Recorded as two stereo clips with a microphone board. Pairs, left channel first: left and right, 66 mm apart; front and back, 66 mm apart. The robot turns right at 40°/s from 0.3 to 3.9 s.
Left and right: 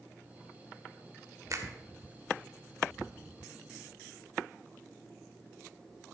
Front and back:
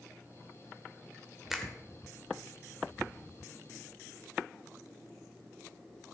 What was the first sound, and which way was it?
A finger snap, 95° right.